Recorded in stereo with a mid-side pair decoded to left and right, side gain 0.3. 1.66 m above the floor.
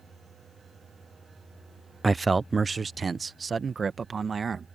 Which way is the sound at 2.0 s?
30° right.